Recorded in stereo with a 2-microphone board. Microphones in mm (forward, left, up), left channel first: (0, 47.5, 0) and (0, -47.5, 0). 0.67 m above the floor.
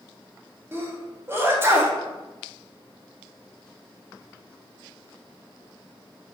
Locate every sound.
0.7 s a sneeze: 25° right (ahead or behind), 0.6 m